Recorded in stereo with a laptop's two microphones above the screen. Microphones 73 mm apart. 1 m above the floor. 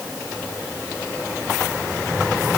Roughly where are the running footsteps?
I don't hear running footsteps.